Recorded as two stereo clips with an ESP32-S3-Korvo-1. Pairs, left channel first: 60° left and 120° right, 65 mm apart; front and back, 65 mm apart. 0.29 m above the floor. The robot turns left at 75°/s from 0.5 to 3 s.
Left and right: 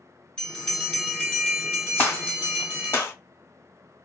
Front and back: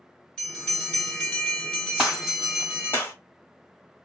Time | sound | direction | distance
0.4 | a bell | 30° left | 1.2 m
2.0 | a gunshot | 110° left | 1.3 m